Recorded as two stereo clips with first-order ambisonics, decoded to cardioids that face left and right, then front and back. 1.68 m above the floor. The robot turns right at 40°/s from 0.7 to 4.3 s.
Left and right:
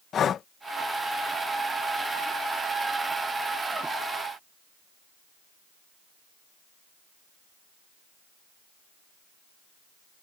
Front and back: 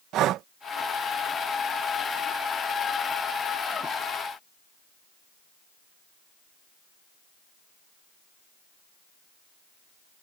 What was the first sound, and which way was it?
Breathing, 145° left.